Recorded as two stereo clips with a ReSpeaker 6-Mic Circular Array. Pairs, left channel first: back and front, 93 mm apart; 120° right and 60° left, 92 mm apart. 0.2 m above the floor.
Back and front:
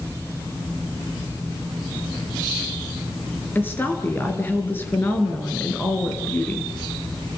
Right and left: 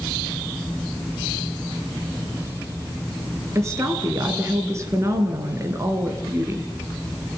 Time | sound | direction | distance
3.5 | a woman speaking | 115° left | 3.5 m